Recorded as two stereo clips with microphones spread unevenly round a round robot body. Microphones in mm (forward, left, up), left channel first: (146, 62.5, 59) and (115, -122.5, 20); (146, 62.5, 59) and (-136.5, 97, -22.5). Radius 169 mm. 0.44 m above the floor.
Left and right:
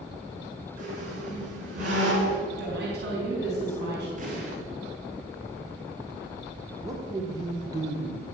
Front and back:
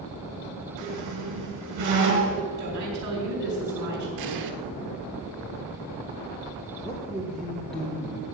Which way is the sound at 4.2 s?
170° right.